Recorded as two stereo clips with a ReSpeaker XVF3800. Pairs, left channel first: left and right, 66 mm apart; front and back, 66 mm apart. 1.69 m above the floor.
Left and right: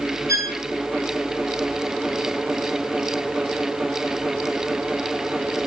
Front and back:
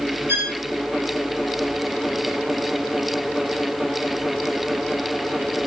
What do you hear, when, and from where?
0.3 s a violin: 130° right, 4.5 m